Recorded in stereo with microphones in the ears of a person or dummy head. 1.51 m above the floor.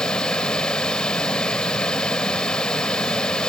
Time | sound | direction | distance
0.0 | running water | 5° left (ahead or behind) | ?